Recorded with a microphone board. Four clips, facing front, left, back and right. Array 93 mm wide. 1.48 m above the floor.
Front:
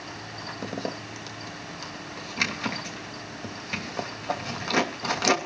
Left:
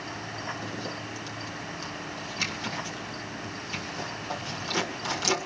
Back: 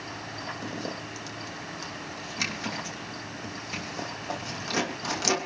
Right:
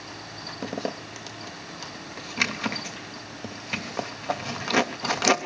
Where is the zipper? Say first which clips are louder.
Right 4 dB, front 5 dB; 65° right, 2.5 m.